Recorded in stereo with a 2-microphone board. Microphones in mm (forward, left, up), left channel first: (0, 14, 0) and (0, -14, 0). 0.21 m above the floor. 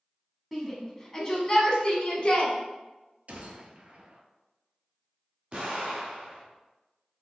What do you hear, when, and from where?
0.5 s a shout: centre (ahead or behind), 1.4 m; by 2.5 s 40° left (ahead or behind), 1.7 m
3.3 s a gunshot: 50° right (ahead or behind), 0.7 m
5.5 s an explosion: 50° right (ahead or behind), 1.6 m